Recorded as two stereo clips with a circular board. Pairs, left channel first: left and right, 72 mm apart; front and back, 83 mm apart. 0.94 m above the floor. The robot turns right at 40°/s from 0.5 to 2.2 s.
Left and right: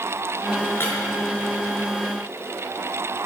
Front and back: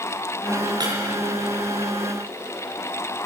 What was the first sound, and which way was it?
Breaking glass, 145° left.